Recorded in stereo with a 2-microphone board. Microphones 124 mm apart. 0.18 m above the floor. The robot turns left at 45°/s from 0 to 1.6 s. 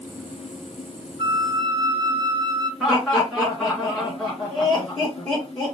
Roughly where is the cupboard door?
I don't hear a cupboard door.